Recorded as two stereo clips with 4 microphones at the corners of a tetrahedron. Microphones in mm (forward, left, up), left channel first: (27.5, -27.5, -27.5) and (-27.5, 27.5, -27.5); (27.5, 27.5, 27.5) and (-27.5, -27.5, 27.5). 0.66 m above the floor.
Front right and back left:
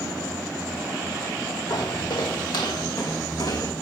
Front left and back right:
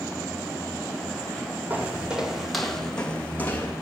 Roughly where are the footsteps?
Right.